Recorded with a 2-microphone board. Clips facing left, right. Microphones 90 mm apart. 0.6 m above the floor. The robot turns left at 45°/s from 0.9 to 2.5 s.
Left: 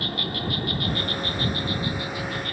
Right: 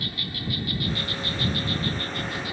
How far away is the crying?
I don't hear crying.